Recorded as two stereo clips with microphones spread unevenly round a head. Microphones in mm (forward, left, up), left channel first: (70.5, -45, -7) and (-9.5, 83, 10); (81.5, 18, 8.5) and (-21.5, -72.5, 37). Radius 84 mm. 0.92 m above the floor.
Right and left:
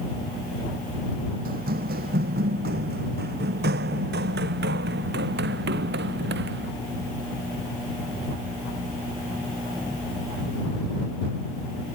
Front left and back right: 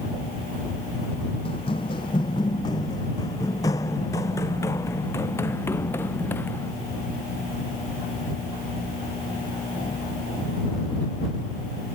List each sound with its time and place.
1.4 s running footsteps: 105° left; by 6.7 s 120° left